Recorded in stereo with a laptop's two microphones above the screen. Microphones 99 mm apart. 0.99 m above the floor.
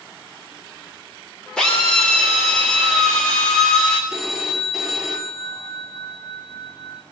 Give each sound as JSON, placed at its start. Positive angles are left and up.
{"t": 1.6, "sound": "a drill", "side_deg": 10, "distance_m": 3.0}
{"t": 4.1, "sound": "a phone ringing", "side_deg": -5, "distance_m": 1.6}